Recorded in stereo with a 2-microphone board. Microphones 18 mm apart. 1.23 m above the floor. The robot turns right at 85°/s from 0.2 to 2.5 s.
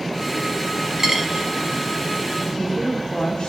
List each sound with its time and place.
1.0 s a dropped coin: 25° right (ahead or behind), 1.0 m
2.4 s a woman speaking: 70° left (ahead or behind), 0.9 m; by 3.5 s 65° left (ahead or behind), 0.9 m